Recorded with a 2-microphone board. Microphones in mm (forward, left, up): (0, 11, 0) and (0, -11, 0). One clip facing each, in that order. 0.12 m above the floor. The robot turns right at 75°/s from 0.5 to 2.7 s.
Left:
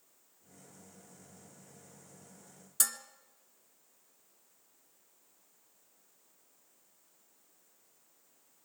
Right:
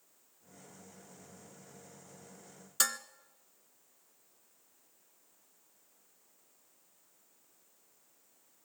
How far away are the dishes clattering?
About 0.9 m.